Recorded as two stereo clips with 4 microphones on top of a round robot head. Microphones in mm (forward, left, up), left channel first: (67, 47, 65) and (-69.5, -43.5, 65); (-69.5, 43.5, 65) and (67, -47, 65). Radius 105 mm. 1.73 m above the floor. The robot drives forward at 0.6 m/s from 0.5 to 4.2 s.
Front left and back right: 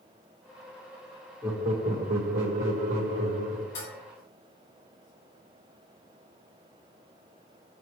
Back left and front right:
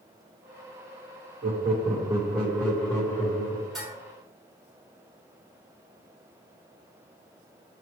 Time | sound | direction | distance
1.4 | laughter | 75° right | 0.9 m
3.8 | dishes clattering | 60° left | 2.5 m